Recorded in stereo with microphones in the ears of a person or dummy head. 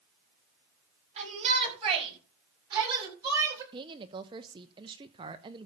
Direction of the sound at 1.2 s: 40° right (ahead or behind).